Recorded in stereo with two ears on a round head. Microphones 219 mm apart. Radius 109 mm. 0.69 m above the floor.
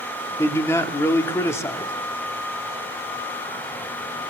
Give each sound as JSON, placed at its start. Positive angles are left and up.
{"t": 0.4, "sound": "a man speaking", "side_deg": 10, "distance_m": 1.3}